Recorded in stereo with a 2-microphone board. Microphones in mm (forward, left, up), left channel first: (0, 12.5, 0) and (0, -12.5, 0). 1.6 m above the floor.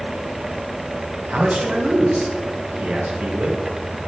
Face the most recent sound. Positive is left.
turn(degrees=-70)  # may be behind; listen again after turning